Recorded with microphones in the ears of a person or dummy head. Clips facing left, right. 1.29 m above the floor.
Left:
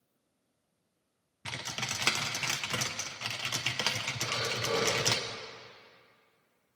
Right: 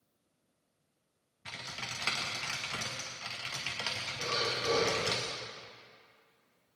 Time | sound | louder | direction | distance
1.4 | typing on a keyboard | left 5 dB | 60° left (ahead or behind) | 0.7 m
4.2 | breathing | right 2 dB | 80° right | 2.5 m